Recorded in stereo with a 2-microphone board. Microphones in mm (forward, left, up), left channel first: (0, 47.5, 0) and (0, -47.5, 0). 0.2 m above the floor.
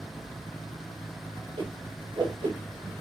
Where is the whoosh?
65° right (ahead or behind), 1.4 m.